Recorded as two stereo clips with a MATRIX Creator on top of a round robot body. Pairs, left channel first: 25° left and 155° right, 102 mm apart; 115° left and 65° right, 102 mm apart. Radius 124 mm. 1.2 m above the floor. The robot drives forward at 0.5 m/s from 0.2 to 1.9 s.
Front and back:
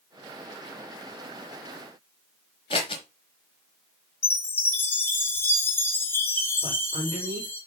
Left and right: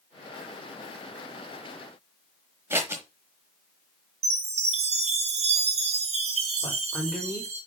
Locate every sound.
2.7 s scissors: 5° right, 1.1 m
4.2 s a chime: 50° right, 1.9 m
6.6 s a woman speaking: 160° right, 4 m